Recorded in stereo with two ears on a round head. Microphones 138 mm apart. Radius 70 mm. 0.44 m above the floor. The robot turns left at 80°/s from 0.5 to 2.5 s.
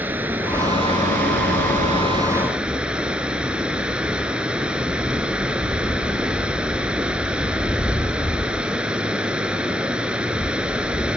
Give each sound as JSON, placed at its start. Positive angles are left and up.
{"t": 0.0, "sound": "running water", "azimuth_deg": -10, "distance_m": 0.8}